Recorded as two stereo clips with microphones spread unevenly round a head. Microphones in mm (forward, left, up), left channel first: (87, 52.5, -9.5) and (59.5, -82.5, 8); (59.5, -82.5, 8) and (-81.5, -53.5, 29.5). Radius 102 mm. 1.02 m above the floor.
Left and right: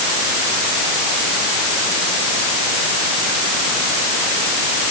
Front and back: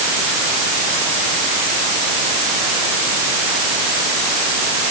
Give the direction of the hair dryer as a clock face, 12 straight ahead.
No hair dryer in this recording.